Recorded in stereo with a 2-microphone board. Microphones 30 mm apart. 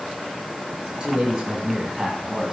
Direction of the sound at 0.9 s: 25° right (ahead or behind).